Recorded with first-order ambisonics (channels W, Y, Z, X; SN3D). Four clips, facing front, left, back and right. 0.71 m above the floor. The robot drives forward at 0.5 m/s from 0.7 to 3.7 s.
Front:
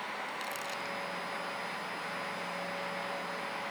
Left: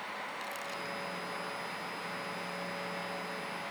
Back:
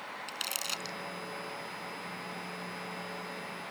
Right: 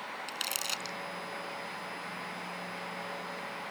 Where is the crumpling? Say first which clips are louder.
Right 4 dB, back 1 dB; 130° right.